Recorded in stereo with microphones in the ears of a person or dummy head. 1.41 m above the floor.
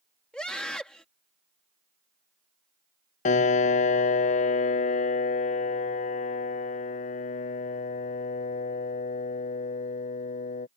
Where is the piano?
40° left (ahead or behind).